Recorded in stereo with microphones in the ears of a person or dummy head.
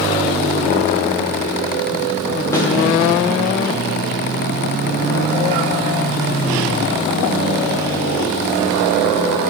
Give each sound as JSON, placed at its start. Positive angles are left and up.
{"t": 2.5, "sound": "a snare drum", "side_deg": 20, "distance_m": 1.9}